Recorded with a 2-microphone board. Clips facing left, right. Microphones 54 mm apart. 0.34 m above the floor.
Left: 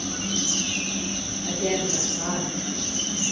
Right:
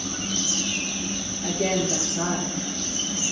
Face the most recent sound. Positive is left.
turn(degrees=-80)